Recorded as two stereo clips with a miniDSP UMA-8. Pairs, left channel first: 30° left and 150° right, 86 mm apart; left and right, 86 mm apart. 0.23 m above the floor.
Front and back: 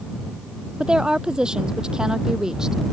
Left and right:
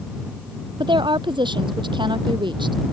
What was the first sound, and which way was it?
A woman speaking, 70° right.